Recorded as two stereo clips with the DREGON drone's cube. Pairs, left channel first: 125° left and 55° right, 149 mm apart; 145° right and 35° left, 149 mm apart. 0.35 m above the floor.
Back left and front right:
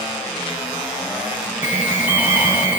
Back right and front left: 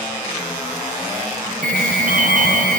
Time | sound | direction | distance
1.6 | an alarm | 20° left | 4.5 m